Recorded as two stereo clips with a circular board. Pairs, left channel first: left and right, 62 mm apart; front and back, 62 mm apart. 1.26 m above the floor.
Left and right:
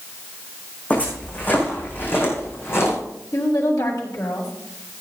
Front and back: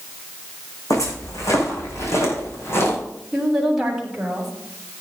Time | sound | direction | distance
0.9 | footsteps | 25° left | 5 m
3.3 | a woman speaking | 100° left | 3.5 m